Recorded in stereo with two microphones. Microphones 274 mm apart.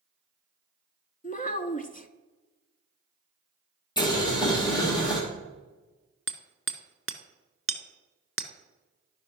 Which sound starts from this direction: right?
Hammering, at 6.3 s.